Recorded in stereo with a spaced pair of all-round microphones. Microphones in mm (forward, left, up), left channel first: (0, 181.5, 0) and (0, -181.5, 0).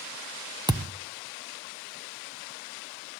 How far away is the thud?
About 0.9 m.